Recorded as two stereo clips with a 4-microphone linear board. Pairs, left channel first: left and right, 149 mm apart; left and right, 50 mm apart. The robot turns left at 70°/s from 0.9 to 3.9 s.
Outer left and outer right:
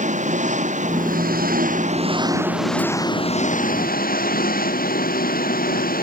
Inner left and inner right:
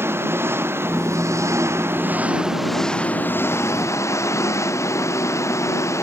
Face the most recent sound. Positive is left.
turn(degrees=95)